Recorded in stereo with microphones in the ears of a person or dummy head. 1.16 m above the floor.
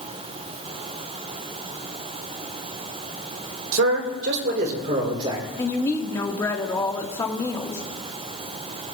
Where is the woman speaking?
15° left (ahead or behind), 1.5 m.